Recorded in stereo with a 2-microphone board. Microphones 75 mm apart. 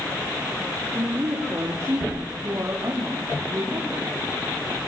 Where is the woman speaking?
45° right (ahead or behind), 5 m; by 4.9 s 40° right (ahead or behind), 8.5 m.